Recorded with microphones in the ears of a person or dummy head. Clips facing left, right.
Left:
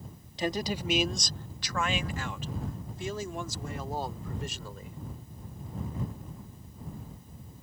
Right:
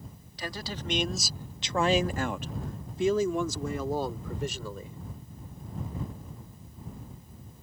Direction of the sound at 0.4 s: 25° left (ahead or behind).